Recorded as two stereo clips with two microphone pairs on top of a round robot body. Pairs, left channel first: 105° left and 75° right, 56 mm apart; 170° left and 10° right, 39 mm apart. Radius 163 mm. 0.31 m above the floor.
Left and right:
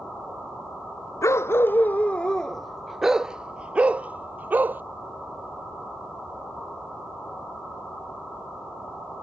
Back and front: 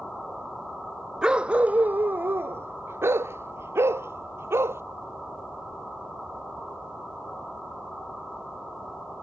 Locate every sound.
1.2 s a dog barking: 65° left; by 4.8 s 20° right